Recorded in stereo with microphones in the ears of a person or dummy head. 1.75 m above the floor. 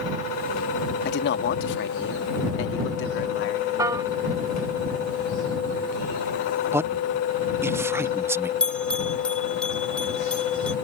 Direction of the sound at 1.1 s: 75° left (ahead or behind).